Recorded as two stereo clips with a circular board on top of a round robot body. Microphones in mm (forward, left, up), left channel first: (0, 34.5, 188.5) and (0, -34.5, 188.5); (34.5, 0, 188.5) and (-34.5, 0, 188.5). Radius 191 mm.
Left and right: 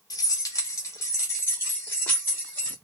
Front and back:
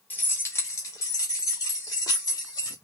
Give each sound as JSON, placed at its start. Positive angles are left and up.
{"t": 0.1, "sound": "keys jangling", "azimuth_deg": 60, "distance_m": 0.9}